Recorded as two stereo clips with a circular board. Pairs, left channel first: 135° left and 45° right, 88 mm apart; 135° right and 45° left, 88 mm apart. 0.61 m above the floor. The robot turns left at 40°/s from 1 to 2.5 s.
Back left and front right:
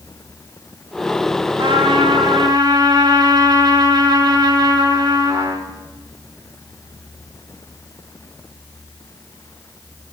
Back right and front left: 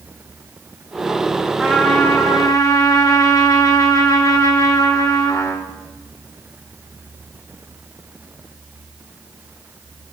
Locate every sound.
1.6 s a trumpet: 50° right, 4 m; by 5.7 s 85° right, 4 m